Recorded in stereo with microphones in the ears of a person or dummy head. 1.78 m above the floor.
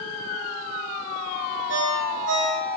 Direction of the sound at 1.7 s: 80° right.